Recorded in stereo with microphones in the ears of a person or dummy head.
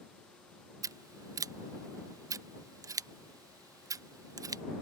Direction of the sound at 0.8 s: 15° right (ahead or behind).